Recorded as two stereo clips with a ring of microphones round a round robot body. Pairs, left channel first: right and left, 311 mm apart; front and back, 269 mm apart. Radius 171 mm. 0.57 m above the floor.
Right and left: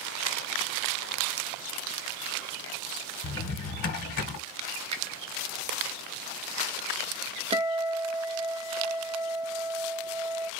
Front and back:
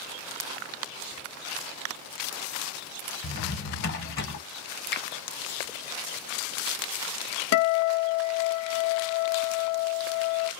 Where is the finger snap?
25° left, 0.7 m.